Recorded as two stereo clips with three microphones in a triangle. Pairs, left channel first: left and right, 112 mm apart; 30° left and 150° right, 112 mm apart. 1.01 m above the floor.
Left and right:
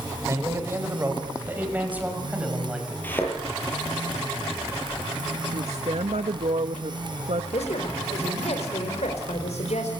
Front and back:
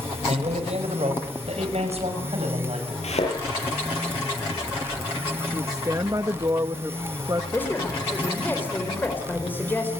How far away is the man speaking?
About 5 m.